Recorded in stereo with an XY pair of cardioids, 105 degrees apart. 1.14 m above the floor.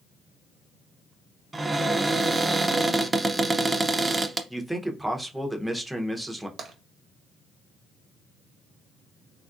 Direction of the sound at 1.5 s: 20° right.